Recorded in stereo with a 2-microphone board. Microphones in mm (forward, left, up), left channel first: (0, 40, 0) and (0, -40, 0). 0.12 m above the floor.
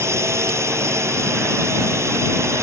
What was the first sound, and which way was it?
A drone, 35° right (ahead or behind).